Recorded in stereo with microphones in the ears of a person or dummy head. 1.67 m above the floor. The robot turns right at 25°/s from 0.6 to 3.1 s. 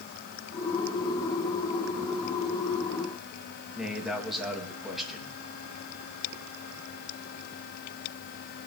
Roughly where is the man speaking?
Centre.